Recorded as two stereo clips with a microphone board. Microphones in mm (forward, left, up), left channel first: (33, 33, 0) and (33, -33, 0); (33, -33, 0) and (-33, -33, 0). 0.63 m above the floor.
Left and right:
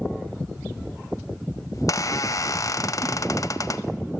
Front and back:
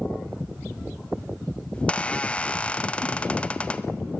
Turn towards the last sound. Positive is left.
turn(degrees=65)